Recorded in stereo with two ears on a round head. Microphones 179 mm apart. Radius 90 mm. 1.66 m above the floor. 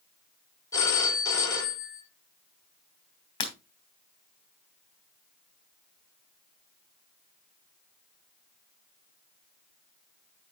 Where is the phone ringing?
20° left (ahead or behind), 3 m.